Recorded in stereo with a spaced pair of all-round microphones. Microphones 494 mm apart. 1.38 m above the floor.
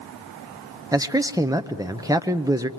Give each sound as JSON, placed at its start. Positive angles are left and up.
{"t": 0.9, "sound": "a man speaking", "side_deg": -5, "distance_m": 0.7}